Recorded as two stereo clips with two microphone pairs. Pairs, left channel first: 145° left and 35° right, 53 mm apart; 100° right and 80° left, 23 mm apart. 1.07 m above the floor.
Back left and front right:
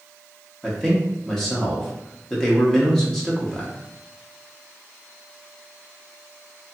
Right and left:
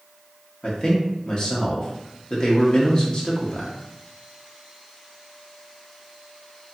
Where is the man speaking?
140° right, 0.8 m.